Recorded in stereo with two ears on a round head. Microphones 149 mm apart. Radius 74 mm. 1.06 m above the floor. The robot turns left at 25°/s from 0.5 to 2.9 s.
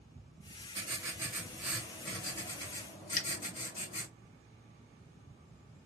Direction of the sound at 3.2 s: 50° left (ahead or behind).